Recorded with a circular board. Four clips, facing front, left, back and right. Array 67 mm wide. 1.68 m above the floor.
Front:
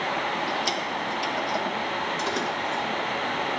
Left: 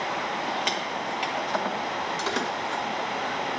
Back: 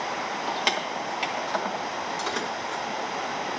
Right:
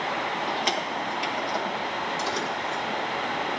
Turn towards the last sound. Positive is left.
turn(degrees=105)